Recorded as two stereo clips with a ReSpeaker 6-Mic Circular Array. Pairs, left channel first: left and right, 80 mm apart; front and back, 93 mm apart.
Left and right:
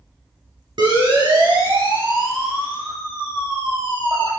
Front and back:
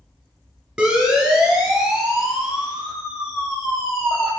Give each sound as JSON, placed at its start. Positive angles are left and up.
{"t": 0.8, "sound": "a siren", "azimuth_deg": -95, "distance_m": 7.0}